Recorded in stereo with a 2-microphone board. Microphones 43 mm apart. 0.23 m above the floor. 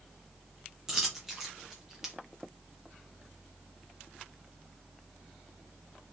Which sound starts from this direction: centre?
A dropped coin, at 0.9 s.